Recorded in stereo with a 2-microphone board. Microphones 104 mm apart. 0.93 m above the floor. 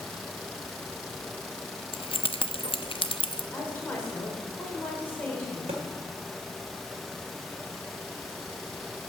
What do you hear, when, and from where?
1.9 s keys jangling: 60° left (ahead or behind), 0.5 m
3.5 s a woman speaking: 20° left (ahead or behind), 3 m
5.7 s a thud: 80° right, 1.7 m